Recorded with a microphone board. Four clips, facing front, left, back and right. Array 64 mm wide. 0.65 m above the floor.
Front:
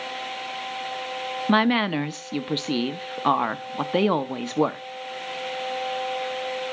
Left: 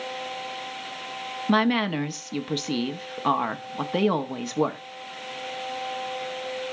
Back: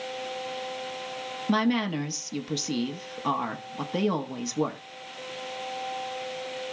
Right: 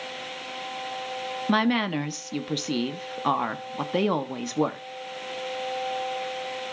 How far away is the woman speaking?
About 0.7 m.